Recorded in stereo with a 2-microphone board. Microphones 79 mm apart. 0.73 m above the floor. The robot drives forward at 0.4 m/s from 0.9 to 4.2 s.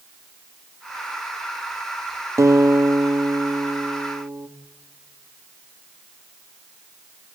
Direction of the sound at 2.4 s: 40° right (ahead or behind).